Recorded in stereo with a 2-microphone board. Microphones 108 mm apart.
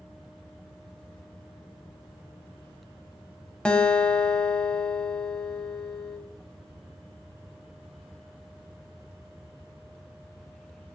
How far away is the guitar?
About 1.5 m.